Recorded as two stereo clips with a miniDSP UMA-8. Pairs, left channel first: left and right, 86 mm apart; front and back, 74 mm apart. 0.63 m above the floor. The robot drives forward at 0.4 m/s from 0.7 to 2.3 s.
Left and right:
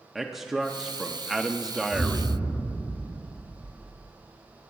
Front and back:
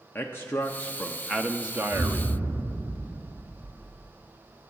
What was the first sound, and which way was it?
A man speaking, 5° right.